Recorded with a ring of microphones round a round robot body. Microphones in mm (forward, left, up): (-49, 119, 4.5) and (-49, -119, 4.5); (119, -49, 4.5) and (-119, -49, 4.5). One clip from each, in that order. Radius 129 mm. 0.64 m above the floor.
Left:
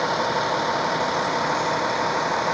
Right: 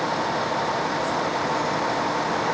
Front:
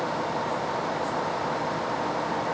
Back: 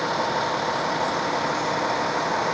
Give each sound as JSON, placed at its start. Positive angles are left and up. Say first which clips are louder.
{"t": 0.0, "sound": "a vehicle", "louder": "left 2 dB, back 4 dB", "azimuth_deg": 145}